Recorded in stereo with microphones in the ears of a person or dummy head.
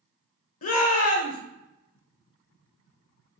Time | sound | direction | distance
0.6 | a shout | 45° left (ahead or behind) | 1.0 m